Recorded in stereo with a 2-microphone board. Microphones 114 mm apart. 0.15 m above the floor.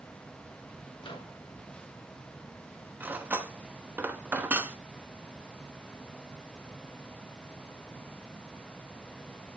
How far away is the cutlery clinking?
About 1.1 m.